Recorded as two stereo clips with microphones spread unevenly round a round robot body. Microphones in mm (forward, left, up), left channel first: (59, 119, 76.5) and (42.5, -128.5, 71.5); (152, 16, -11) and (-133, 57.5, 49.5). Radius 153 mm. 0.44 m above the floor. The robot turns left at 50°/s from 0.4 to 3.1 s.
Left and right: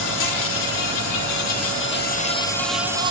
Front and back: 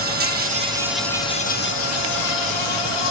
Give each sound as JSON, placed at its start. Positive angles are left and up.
{"t": 0.0, "sound": "an insect", "azimuth_deg": 115, "distance_m": 1.9}